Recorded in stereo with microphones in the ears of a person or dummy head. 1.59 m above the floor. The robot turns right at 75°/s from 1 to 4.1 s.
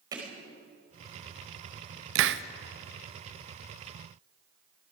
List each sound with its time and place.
0.1 s hammering: 15° right (ahead or behind), 4.5 m
2.1 s a hiss: 70° right (ahead or behind), 0.7 m; by 2.4 s 55° right (ahead or behind), 0.7 m